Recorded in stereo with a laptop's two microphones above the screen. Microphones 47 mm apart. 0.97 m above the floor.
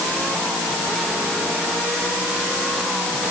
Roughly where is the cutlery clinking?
I don't hear cutlery clinking.